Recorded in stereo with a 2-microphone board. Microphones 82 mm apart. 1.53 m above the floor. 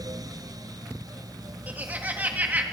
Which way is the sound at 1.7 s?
25° right (ahead or behind).